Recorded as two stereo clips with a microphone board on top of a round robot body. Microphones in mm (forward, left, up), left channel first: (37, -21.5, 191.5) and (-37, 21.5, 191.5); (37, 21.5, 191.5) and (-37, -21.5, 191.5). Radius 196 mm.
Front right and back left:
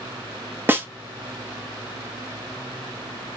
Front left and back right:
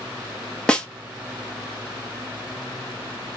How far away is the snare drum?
About 1.2 m.